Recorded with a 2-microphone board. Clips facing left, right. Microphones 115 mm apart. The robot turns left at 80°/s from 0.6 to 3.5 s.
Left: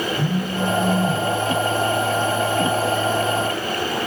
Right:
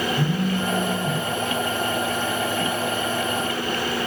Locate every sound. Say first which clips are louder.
0.1 s a phone buzzing: even; 25° left, 1.3 m; by 1.2 s 25° right, 1.3 m